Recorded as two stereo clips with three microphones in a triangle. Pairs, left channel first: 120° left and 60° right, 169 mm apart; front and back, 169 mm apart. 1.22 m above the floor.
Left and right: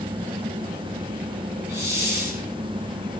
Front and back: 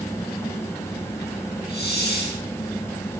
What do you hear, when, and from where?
1.7 s a hiss: 15° left, 5.5 m